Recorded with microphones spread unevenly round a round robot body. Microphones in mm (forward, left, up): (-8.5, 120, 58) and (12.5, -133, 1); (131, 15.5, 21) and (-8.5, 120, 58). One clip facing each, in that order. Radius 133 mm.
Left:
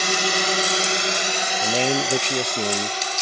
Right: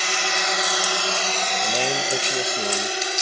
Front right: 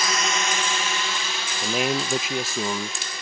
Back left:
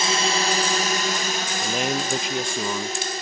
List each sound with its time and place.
0.0 s a drone: 85° left; by 3.2 s 155° right
1.6 s a man speaking: 20° left